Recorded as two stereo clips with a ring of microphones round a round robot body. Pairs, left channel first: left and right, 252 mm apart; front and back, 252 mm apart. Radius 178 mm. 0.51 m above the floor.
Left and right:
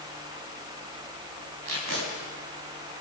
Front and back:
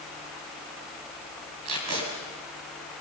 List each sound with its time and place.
1.6 s tape being pulled: 145° right, 3.5 m